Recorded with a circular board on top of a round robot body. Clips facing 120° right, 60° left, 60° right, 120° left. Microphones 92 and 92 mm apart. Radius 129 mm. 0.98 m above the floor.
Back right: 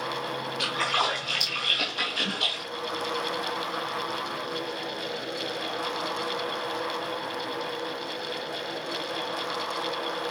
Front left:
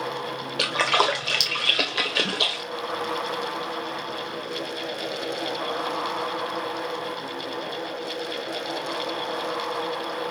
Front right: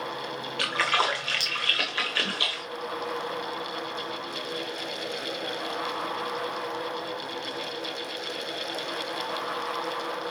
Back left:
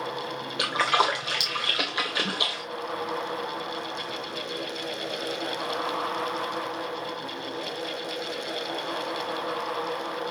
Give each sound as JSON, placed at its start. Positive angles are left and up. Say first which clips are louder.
{"t": 0.6, "sound": "a splash", "louder": "front left 6 dB, back left 3 dB", "azimuth_deg": 45, "distance_m": 1.2}